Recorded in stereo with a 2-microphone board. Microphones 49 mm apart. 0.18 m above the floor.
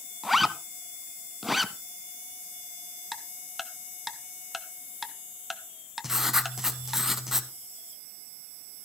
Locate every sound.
0.2 s a zipper: 5° right (ahead or behind), 0.6 m
3.1 s ticking: centre (ahead or behind), 0.8 m
6.0 s writing: 10° right (ahead or behind), 1.0 m